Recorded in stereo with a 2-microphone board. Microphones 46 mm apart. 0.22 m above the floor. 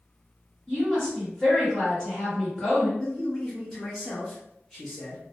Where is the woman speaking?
15° left (ahead or behind), 1.8 m.